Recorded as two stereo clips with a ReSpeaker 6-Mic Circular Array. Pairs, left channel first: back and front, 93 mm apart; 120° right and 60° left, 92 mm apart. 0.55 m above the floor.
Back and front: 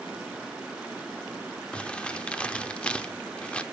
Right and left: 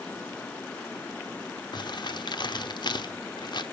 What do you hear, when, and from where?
1.7 s crumpling: 105° right, 0.8 m